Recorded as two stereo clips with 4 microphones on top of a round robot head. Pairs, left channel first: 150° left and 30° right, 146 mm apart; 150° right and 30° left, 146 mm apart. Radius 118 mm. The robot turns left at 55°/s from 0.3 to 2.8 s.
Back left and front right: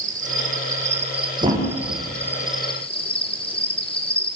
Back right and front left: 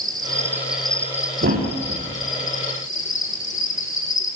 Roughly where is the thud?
Ahead left.